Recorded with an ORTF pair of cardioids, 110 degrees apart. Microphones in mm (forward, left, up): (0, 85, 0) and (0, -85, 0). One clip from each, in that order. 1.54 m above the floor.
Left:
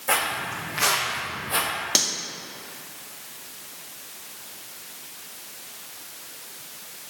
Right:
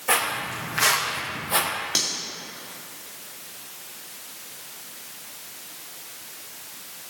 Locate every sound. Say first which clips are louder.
0.1 s footsteps: right 1 dB; straight ahead, 5 m; by 1.7 s 15° right, 3 m
1.9 s cutlery clinking: left 3 dB; 35° left, 2 m